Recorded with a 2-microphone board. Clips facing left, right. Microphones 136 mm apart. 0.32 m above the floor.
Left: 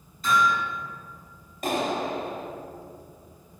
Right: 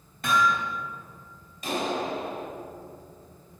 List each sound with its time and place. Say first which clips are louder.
0.2 s hammering: left 1 dB; 60° right (ahead or behind), 3 m
1.6 s a clap: left 2 dB; 55° left (ahead or behind), 2 m